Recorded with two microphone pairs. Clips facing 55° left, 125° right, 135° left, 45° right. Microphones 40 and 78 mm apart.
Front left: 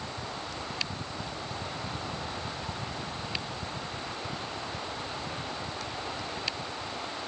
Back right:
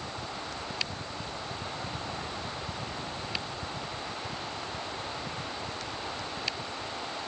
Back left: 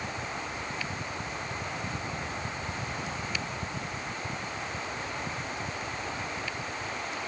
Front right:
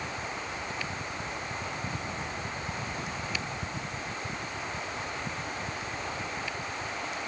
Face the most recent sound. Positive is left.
No sound to turn to.